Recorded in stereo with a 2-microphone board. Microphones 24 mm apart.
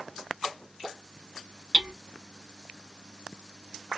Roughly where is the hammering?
Right.